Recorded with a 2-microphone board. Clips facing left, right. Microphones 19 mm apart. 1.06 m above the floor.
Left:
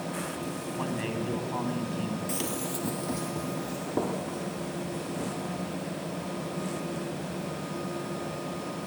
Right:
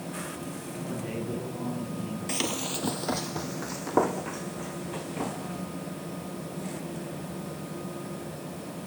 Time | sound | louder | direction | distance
0.8 | a man speaking | left 2 dB | 85° left | 9 m
2.3 | running footsteps | right 2 dB | 30° right (ahead or behind) | 1.4 m